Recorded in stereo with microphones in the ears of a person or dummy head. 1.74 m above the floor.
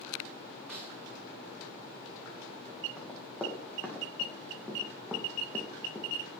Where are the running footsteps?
5° left (ahead or behind), 5.5 m; by 6.1 s 10° left (ahead or behind), 3.5 m.